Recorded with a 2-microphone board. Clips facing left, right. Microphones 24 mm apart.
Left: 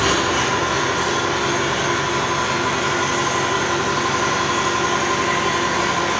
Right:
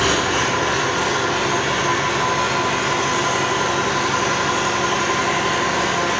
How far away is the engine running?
About 1.5 m.